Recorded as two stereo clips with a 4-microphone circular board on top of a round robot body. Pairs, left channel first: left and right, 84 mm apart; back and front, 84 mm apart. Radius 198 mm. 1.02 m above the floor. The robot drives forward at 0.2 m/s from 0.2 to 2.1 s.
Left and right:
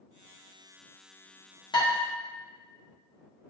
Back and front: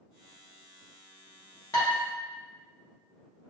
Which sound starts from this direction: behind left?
Dishes clattering, at 1.7 s.